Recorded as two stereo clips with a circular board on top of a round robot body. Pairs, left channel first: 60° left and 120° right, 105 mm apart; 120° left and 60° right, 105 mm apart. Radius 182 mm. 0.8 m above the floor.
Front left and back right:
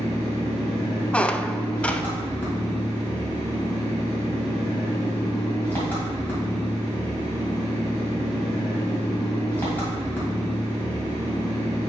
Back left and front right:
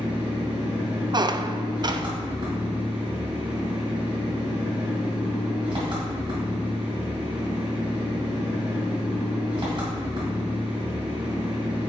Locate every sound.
0.0 s an engine running: 15° right, 2 m
1.1 s a squeak: 20° right, 0.5 m